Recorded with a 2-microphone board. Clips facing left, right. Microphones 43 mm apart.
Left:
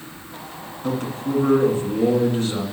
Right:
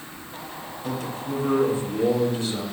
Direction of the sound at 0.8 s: 40° left (ahead or behind).